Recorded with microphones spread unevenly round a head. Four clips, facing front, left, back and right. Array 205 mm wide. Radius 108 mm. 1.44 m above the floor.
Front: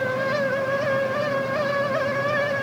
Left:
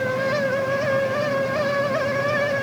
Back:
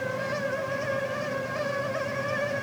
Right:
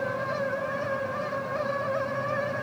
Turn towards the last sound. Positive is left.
No sound to turn to.